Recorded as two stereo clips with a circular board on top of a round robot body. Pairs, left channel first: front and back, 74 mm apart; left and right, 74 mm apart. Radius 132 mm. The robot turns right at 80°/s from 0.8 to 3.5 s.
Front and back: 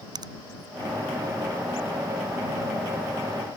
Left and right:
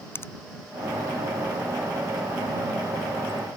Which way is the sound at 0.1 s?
150° left.